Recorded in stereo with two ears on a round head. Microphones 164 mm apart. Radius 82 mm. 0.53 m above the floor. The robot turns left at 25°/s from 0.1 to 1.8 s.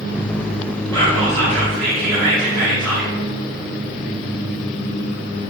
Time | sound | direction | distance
0.9 | whispering | 15° left (ahead or behind) | 2.5 m